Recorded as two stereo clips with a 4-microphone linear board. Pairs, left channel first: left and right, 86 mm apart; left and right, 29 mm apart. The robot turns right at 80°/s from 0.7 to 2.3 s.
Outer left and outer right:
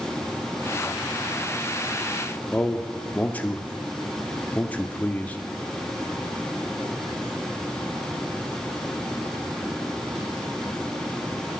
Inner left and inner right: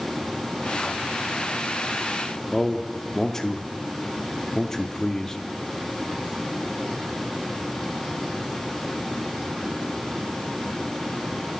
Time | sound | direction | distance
2.5 | a man speaking | 15° left (ahead or behind) | 0.7 m